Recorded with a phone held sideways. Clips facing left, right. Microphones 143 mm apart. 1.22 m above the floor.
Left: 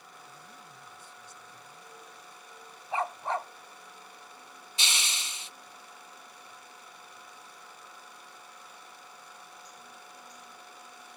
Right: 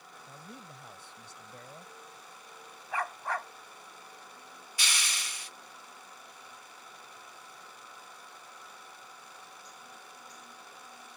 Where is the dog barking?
25° left (ahead or behind).